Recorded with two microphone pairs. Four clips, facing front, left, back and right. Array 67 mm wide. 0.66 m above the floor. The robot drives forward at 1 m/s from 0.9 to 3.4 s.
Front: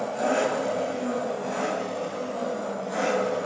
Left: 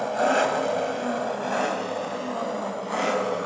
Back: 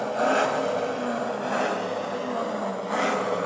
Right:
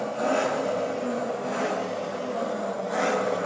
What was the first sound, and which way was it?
An engine running, 110° left.